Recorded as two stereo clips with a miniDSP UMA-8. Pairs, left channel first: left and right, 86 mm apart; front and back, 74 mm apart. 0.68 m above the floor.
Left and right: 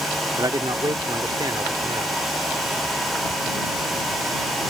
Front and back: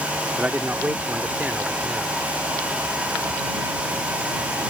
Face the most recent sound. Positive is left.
turn(degrees=-115)